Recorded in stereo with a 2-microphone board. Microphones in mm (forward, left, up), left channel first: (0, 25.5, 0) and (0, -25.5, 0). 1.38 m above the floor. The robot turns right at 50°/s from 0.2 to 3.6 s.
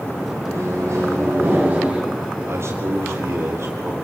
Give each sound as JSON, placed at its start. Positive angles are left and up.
{"t": 0.4, "sound": "a microwave", "azimuth_deg": -100, "distance_m": 9.0}
{"t": 2.5, "sound": "a man speaking", "azimuth_deg": -125, "distance_m": 3.5}